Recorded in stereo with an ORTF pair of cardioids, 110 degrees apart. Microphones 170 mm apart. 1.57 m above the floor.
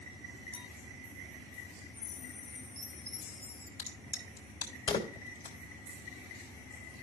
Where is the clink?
30° left, 1.4 m.